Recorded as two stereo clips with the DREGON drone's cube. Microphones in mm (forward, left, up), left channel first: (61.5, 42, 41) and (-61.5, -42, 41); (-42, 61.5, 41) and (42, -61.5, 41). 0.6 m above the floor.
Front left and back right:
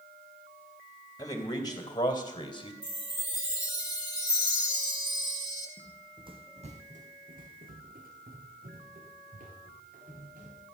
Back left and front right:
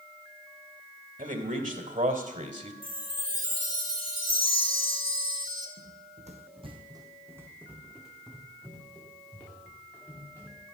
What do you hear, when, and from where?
1.2 s a man speaking: 30° right, 3 m; by 2.7 s 20° right, 2 m
2.8 s a chime: 25° right, 2.5 m
5.8 s running footsteps: 75° right, 1.7 m; by 10.6 s 165° right, 5 m